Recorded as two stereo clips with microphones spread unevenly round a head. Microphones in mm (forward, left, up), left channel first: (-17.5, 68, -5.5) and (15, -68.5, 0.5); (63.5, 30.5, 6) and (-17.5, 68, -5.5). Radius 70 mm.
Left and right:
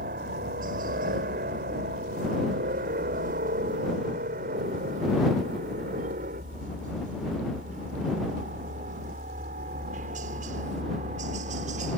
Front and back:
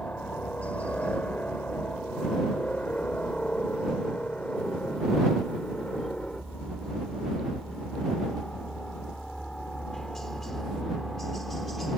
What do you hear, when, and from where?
0.0 s a helicopter: 105° right; by 12.0 s 115° right